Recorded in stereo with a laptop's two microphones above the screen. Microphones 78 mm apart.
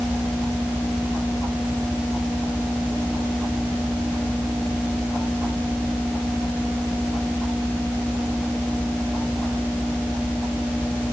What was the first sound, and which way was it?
Only background noise.